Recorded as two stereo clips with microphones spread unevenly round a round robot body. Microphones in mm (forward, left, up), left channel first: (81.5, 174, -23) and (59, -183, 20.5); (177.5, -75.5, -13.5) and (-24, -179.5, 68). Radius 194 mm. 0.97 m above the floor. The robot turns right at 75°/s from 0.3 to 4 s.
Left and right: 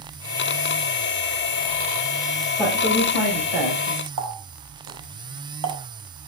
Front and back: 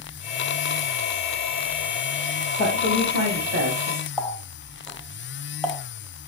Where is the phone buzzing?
No phone buzzing in this recording.